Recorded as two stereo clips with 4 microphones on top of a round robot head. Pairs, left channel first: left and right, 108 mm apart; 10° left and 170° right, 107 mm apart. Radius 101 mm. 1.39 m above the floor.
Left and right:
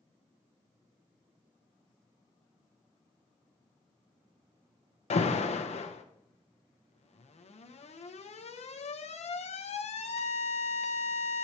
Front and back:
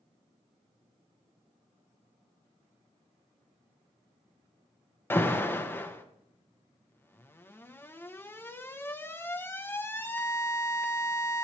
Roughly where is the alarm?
Left.